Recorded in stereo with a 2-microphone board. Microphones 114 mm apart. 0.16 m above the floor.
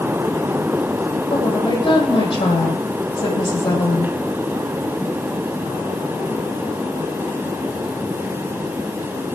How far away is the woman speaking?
About 5.5 m.